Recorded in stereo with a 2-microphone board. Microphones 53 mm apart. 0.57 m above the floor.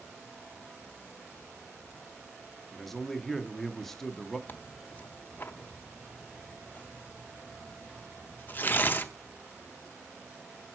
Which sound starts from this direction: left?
Tearing paper, at 4.5 s.